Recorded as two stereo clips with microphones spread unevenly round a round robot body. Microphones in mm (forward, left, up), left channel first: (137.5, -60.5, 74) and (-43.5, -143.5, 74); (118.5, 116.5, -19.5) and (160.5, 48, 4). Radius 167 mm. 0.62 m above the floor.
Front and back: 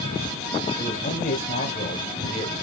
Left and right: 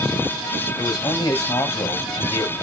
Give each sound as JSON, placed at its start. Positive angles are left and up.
{"t": 0.8, "sound": "a man speaking", "azimuth_deg": 85, "distance_m": 3.0}